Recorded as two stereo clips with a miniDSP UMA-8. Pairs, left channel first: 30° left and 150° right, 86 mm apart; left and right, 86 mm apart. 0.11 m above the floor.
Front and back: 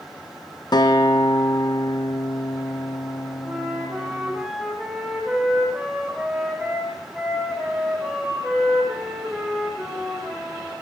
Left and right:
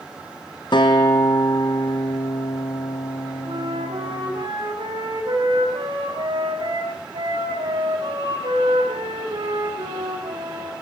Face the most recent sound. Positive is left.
turn(degrees=-70)